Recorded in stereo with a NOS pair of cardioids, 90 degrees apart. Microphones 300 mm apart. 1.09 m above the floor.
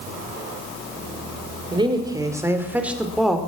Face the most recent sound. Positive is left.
turn(degrees=0)